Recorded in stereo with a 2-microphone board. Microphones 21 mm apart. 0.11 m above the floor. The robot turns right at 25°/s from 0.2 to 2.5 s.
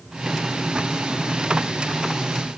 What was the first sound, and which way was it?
Only background noise.